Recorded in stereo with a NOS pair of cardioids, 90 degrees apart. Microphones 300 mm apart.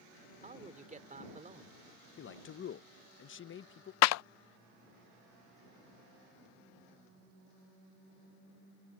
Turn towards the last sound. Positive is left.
turn(degrees=65)